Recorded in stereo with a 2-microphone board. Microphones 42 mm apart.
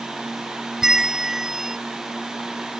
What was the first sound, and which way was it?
A bell, 10° right (ahead or behind).